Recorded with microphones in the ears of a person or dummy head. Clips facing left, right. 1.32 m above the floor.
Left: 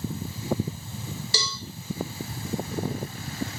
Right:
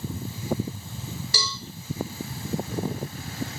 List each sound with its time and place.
1.3 s a cowbell: 25° left (ahead or behind), 0.6 m